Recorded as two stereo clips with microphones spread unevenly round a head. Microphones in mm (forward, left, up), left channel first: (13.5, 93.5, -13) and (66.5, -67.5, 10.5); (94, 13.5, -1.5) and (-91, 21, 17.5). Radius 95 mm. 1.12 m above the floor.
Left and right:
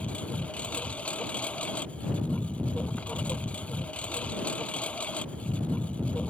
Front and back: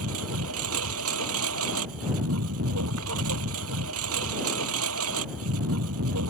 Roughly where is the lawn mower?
Behind.